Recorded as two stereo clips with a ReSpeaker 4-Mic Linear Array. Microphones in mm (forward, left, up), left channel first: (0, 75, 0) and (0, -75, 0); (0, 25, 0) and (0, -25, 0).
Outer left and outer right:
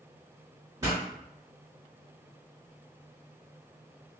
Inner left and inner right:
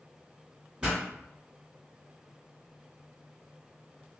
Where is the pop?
20° right (ahead or behind), 1.8 m.